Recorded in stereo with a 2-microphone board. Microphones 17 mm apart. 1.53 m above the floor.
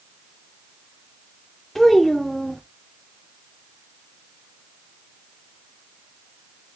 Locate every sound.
1.8 s a child speaking: 20° left (ahead or behind), 0.7 m